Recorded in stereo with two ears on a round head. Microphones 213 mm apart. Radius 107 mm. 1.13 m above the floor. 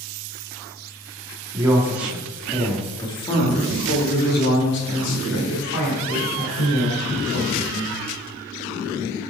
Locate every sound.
1.5 s a man speaking: 15° right (ahead or behind), 2 m; by 8.0 s 75° left (ahead or behind), 4 m